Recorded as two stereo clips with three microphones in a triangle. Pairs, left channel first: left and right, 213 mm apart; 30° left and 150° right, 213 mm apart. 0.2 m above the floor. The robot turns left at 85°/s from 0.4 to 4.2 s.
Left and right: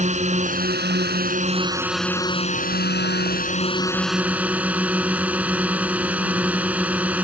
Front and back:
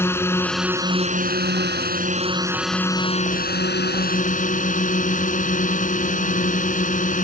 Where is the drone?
45° right; by 7.2 s 10° right.